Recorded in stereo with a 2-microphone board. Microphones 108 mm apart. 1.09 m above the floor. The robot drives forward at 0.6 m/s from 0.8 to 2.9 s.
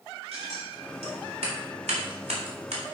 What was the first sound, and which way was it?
Scissors, 80° right.